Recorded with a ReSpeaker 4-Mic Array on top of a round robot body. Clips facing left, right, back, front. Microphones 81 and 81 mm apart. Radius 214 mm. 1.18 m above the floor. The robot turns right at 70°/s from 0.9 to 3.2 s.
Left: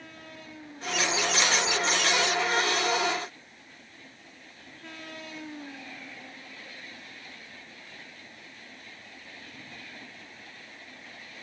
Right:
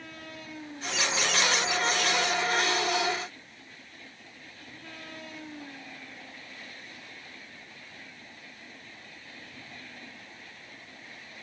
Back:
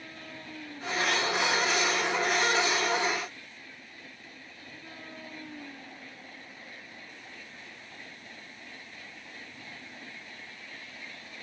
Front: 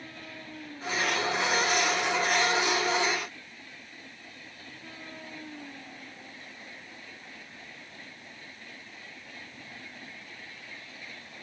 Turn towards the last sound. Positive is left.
No sound to turn to.